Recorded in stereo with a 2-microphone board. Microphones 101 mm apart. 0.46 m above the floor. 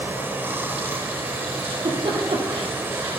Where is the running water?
20° right (ahead or behind), 0.8 m.